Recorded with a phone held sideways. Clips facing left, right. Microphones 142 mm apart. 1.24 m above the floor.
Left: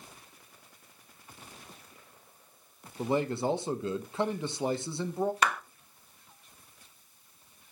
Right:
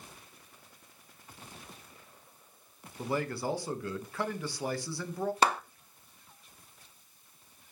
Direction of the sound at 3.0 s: 20° left (ahead or behind).